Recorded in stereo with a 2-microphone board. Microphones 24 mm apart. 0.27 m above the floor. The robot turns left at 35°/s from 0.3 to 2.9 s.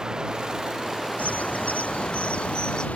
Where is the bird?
95° left; by 2.9 s 35° left.